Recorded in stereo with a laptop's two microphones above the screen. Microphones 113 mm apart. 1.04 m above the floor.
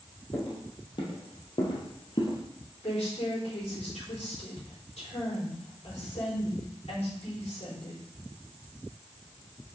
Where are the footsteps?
50° left (ahead or behind), 2.5 m; by 2.4 s 45° left (ahead or behind), 1.3 m.